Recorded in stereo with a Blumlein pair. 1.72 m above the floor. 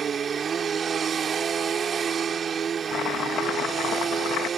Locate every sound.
0.0 s a machine running: 20° right
2.9 s chopping: 30° left